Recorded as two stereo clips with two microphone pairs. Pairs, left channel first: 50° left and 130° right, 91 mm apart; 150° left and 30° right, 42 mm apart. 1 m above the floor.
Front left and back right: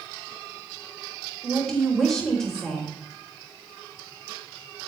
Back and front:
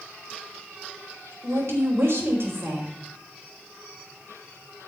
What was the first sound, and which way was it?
A woman speaking, 35° right.